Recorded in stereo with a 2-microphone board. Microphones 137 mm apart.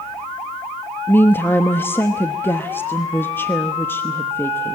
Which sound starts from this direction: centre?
A woman speaking, at 1.1 s.